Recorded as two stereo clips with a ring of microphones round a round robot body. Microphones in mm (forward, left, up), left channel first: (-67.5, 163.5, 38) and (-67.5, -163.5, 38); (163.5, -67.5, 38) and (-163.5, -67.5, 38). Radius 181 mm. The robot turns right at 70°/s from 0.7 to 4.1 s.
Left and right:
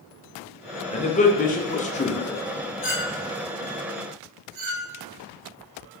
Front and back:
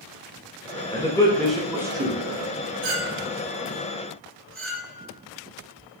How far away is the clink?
About 1.3 m.